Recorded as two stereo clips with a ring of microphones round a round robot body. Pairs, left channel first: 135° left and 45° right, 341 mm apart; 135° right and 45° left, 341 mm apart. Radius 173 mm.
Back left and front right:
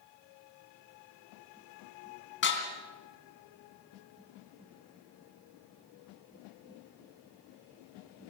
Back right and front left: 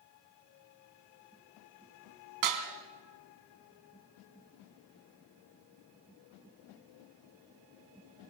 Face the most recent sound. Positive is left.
turn(degrees=75)